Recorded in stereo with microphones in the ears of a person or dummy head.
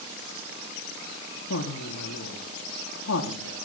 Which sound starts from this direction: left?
A woman speaking, at 1.5 s.